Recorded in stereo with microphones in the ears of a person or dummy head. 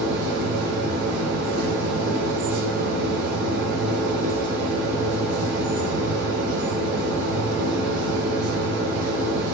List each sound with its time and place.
0.0 s a machine running: 65° right (ahead or behind), 3 m